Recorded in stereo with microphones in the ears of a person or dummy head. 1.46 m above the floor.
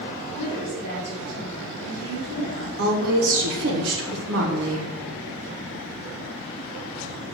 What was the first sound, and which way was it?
A woman speaking, 30° left (ahead or behind).